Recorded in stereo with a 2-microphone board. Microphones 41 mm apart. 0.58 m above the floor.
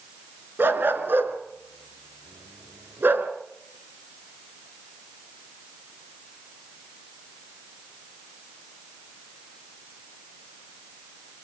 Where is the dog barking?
65° right (ahead or behind), 3.5 m.